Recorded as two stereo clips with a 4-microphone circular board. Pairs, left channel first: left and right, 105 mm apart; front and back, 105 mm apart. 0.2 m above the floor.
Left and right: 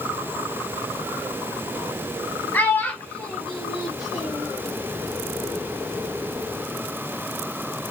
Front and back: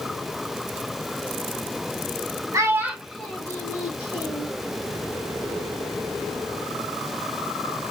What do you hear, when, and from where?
2.5 s a child speaking: 150° left, 1.1 m; by 4.5 s 5° right, 1.6 m